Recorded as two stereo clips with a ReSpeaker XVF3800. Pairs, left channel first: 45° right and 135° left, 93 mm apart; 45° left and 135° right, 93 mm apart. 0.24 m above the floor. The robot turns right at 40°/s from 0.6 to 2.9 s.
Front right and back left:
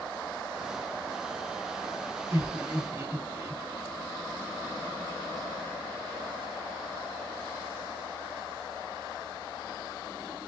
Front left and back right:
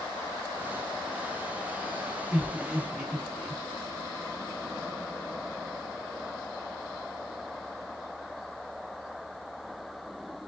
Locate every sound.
2.3 s laughter: 135° left, 1.6 m; by 3.6 s 160° left, 1.6 m